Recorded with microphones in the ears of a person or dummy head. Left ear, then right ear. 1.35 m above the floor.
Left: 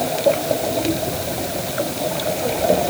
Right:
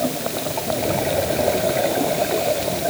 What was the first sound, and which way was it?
Only background noise.